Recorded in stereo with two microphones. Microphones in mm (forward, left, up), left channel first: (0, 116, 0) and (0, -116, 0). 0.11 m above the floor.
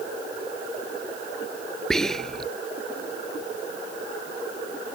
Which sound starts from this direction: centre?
Whispering, at 1.9 s.